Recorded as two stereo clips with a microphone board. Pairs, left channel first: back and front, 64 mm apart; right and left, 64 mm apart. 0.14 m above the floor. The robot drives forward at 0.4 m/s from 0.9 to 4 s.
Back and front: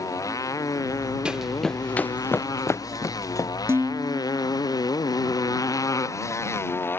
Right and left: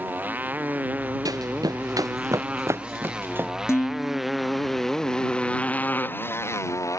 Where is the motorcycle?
150° left; by 7.0 s 125° right.